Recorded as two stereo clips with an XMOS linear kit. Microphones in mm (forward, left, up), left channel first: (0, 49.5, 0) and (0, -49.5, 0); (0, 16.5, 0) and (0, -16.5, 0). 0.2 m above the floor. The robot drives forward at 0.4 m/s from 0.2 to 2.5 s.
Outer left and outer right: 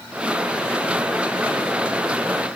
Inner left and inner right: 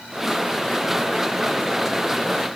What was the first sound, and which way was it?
Only background noise.